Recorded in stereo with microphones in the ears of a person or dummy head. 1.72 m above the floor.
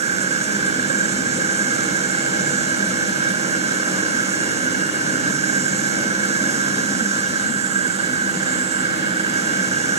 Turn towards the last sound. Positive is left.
turn(degrees=-35)  # may be behind; listen again after turning